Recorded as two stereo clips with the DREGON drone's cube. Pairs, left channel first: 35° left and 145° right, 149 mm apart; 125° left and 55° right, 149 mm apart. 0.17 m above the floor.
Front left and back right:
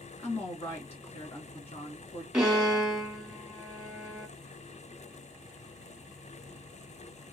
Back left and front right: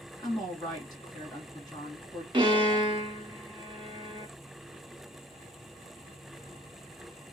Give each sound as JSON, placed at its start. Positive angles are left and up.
{"t": 0.2, "sound": "a woman speaking", "azimuth_deg": 70, "distance_m": 2.0}
{"t": 2.3, "sound": "a violin", "azimuth_deg": -60, "distance_m": 1.4}